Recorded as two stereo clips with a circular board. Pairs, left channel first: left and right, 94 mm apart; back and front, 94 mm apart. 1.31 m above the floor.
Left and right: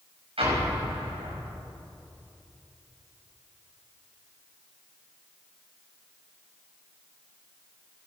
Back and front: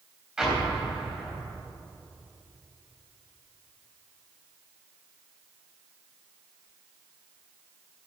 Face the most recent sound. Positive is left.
turn(degrees=-80)